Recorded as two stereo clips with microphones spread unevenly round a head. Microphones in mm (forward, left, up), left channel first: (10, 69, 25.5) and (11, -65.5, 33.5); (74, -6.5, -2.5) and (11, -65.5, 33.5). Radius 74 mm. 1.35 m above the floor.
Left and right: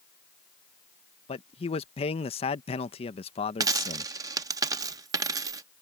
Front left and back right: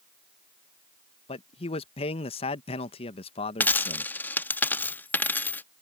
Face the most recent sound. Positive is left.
turn(degrees=-50)